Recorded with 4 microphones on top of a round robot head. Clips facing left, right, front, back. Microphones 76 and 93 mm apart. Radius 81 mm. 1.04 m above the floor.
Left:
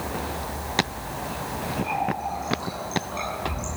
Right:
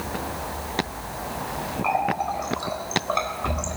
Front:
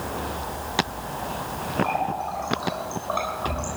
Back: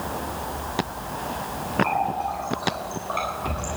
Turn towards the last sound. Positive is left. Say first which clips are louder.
# right 6 dB, back 1 dB
turn(degrees=-70)